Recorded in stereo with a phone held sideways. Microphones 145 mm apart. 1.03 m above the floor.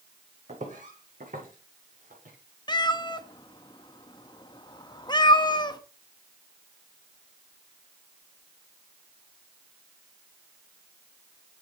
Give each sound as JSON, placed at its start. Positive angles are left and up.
{"t": 0.5, "sound": "footsteps", "side_deg": -55, "distance_m": 2.0}
{"t": 2.7, "sound": "a cat meowing", "side_deg": 30, "distance_m": 0.6}